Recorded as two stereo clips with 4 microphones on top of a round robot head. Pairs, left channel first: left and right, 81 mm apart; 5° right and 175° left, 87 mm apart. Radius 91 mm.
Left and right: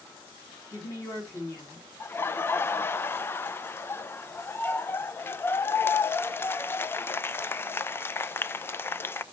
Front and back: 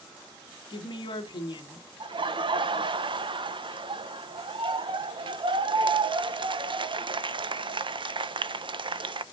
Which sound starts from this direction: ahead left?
A woman speaking, at 0.7 s.